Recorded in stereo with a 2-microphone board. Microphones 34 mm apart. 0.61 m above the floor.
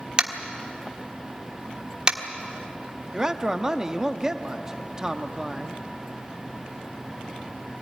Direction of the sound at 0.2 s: 25° right (ahead or behind).